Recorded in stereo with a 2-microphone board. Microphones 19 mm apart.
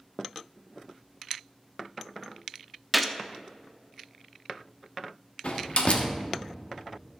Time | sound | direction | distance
2.9 | a gunshot | 5° right (ahead or behind) | 0.6 m
5.4 | a door slam | 60° left (ahead or behind) | 1.0 m